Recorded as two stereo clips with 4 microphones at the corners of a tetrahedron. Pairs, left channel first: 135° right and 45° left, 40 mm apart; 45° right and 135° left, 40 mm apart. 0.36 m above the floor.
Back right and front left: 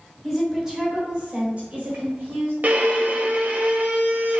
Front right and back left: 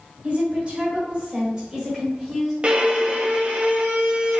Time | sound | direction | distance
0.2 | a woman speaking | 125° left | 1.3 m
2.6 | a violin | 80° left | 0.7 m